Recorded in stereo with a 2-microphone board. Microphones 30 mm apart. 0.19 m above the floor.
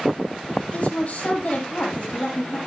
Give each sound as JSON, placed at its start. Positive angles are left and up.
{"t": 0.7, "sound": "a woman speaking", "side_deg": 50, "distance_m": 5.5}